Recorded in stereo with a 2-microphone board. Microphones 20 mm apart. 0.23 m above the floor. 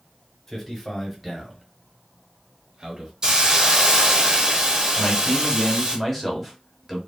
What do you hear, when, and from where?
0.5 s a man speaking: 5° left (ahead or behind), 1.1 m; by 3.1 s 40° right (ahead or behind), 1.3 m
3.2 s a hiss: 35° right (ahead or behind), 0.7 m
5.0 s a man speaking: centre (ahead or behind), 1.0 m